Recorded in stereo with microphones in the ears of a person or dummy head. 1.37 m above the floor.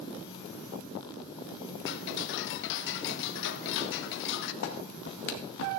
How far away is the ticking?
About 0.6 m.